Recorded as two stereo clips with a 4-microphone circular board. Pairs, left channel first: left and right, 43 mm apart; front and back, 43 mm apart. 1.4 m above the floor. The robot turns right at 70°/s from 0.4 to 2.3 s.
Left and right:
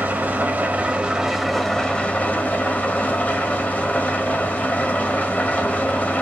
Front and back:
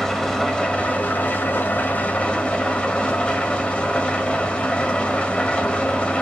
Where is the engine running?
75° right, 1.5 m; by 6.2 s 55° left, 1.5 m.